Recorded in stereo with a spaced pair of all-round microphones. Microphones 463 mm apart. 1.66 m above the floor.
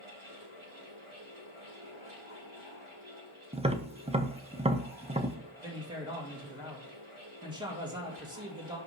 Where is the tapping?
15° right (ahead or behind), 0.7 m.